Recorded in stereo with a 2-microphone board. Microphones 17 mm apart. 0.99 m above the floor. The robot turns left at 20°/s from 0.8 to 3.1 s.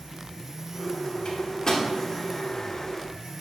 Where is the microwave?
50° left (ahead or behind), 2.5 m; by 1.9 s 40° left (ahead or behind), 2.5 m.